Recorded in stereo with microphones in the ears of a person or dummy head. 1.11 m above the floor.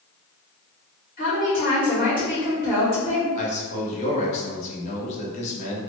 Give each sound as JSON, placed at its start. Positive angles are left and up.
{"t": 1.2, "sound": "a woman speaking", "side_deg": 50, "distance_m": 1.3}
{"t": 3.4, "sound": "a man speaking", "side_deg": 40, "distance_m": 1.1}